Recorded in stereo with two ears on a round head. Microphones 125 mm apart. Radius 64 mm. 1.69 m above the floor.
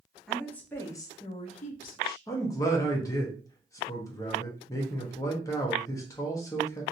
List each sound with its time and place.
0.3 s a woman speaking: 5° left (ahead or behind), 1.0 m; by 2.2 s 75° left (ahead or behind), 0.8 m
2.3 s a man speaking: 25° left (ahead or behind), 0.9 m